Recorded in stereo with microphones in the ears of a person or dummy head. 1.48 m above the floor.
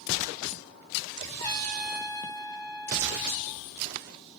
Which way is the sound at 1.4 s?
20° left (ahead or behind).